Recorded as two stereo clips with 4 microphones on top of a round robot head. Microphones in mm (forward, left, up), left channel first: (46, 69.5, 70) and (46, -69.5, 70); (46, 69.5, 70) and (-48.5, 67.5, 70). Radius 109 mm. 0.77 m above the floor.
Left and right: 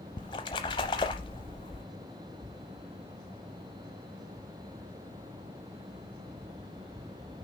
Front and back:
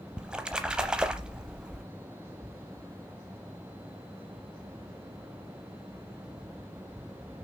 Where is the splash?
110° left, 0.6 m.